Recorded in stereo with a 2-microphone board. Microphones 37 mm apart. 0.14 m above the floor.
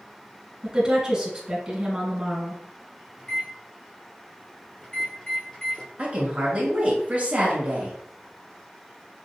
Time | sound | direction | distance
0.6 | a woman speaking | 20° right (ahead or behind) | 1.9 m
3.2 | a microwave | 25° left (ahead or behind) | 2 m
6.0 | a woman speaking | 35° right (ahead or behind) | 1.6 m